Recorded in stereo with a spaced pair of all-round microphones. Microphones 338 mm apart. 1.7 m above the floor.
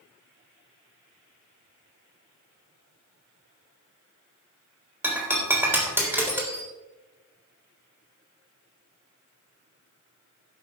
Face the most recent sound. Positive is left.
turn(degrees=-5)  # may be behind; listen again after turning